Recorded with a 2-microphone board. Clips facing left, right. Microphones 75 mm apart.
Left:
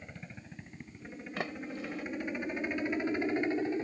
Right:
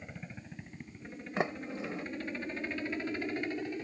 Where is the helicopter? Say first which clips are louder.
Right 1 dB; 5° right (ahead or behind); by 3.9 s 25° left (ahead or behind).